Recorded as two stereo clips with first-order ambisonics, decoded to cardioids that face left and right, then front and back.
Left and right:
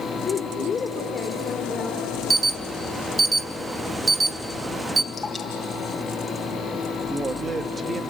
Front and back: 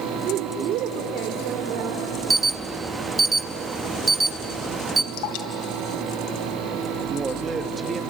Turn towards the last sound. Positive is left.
turn(degrees=-140)